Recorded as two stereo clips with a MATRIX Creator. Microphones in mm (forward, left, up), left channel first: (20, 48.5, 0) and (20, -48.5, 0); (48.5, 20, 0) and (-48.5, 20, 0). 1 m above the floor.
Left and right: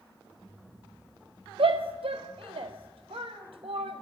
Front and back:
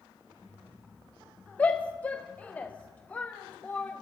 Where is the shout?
75° right, 0.5 m.